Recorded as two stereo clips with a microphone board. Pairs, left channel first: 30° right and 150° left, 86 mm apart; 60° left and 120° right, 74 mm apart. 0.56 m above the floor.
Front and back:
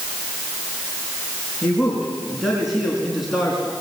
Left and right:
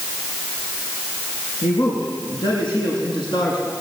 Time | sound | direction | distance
1.6 | a man speaking | 65° left | 7 m